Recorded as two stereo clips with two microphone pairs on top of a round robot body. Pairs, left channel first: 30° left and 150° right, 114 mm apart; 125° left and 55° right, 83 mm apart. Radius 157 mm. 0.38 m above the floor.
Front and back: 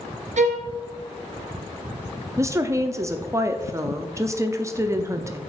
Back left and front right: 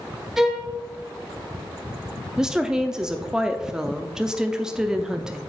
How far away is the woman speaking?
About 0.8 m.